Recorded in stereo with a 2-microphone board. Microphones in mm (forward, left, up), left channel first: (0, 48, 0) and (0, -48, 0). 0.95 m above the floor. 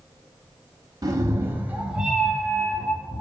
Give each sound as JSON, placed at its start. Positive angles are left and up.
{"t": 1.0, "sound": "a cat meowing", "side_deg": -40, "distance_m": 0.9}